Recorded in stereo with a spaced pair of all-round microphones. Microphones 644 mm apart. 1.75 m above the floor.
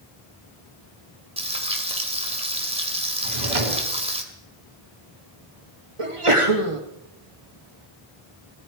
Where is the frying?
10° right (ahead or behind), 2 m.